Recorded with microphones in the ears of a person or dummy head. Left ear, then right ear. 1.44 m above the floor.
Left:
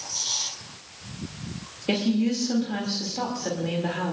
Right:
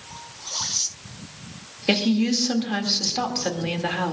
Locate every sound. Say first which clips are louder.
1.9 s a woman speaking: right 4 dB; 45° right (ahead or behind), 2.5 m